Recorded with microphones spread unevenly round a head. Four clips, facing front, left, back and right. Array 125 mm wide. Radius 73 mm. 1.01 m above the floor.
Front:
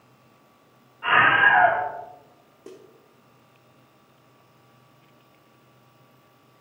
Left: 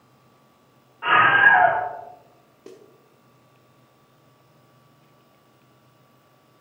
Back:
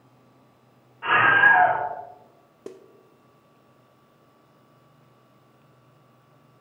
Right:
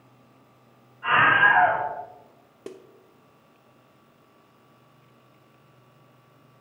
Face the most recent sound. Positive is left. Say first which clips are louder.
# right 4 dB, back 3 dB
turn(degrees=-165)